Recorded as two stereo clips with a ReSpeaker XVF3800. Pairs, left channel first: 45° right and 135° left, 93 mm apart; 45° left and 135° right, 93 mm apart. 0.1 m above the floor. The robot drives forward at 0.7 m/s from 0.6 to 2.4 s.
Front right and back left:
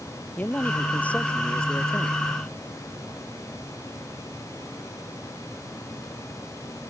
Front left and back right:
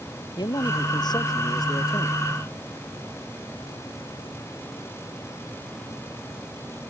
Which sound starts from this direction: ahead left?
A man speaking, at 0.4 s.